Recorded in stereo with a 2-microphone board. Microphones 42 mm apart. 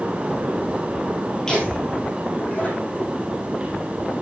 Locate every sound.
1.5 s laughter: 15° left (ahead or behind), 2.5 m; by 3.2 s 45° left (ahead or behind), 4.5 m